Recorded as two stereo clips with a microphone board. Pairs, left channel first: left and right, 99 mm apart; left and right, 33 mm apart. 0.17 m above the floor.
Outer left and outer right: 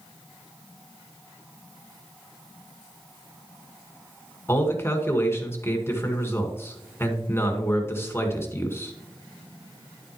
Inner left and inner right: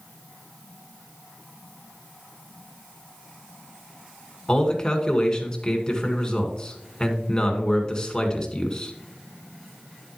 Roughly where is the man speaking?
Left.